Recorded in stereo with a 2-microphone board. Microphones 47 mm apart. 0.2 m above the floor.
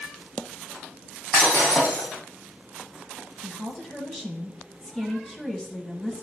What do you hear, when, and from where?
1.3 s breaking glass: 30° left (ahead or behind), 4.5 m
3.4 s a woman speaking: 10° left (ahead or behind), 1.2 m